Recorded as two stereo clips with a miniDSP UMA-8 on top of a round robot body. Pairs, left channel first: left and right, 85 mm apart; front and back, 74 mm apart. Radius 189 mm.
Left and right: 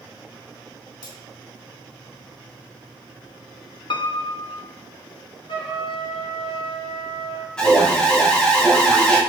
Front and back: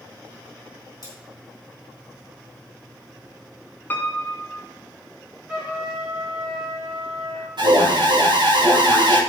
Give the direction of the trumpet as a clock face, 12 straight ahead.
9 o'clock.